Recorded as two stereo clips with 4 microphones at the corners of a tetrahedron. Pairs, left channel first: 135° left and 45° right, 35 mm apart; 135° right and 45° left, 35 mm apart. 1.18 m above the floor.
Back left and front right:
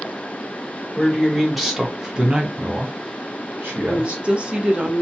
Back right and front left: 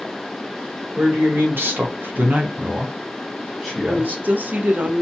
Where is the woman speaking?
10° left, 0.6 m.